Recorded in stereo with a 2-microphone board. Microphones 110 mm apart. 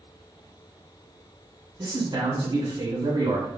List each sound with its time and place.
1.8 s a man speaking: 45° right (ahead or behind), 2.0 m